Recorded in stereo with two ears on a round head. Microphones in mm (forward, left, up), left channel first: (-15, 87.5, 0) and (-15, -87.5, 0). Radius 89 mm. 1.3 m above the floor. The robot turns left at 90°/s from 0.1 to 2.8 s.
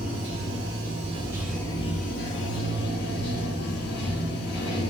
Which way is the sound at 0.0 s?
55° right.